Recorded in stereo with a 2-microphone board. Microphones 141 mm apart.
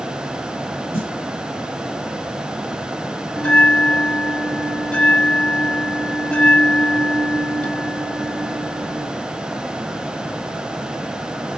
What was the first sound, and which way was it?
A snare drum, 45° left (ahead or behind).